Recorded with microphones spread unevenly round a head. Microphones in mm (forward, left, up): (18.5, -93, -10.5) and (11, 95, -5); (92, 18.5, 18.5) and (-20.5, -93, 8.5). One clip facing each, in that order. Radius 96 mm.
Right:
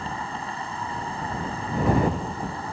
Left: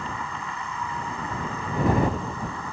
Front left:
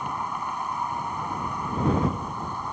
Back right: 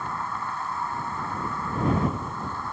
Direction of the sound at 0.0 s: 30° right.